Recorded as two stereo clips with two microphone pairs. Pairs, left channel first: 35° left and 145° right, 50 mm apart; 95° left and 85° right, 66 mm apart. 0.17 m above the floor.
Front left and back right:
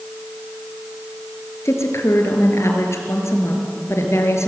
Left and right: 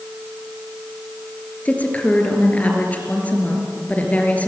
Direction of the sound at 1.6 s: 30° left.